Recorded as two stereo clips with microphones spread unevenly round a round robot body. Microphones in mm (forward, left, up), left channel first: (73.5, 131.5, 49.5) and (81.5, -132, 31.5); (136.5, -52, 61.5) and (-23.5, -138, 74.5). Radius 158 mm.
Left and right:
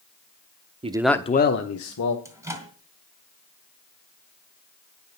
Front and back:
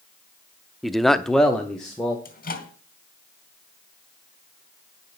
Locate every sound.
0.8 s a man speaking: 55° right, 0.9 m; by 2.1 s 110° left, 1.8 m
2.2 s a microwave: 10° right, 3 m